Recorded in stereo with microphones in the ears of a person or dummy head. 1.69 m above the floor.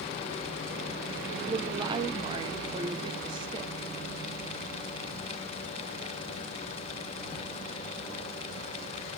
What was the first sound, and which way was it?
A woman speaking, 30° right (ahead or behind).